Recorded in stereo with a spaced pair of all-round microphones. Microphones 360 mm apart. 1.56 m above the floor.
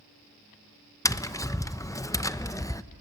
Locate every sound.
1.1 s tapping: 10° left (ahead or behind), 0.7 m